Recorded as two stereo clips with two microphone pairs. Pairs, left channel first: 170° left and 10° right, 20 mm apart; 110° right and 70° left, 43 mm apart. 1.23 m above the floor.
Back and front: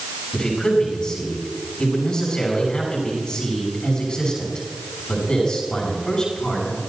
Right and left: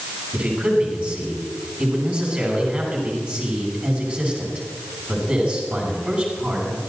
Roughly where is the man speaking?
Behind left.